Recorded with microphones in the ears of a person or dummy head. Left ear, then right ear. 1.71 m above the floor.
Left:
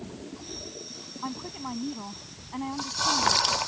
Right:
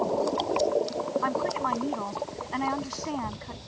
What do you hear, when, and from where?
1.2 s a woman speaking: 60° right (ahead or behind)